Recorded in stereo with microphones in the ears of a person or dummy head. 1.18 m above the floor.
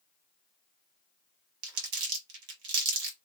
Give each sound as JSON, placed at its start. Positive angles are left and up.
{"t": 1.6, "sound": "crumpling", "side_deg": -80, "distance_m": 1.1}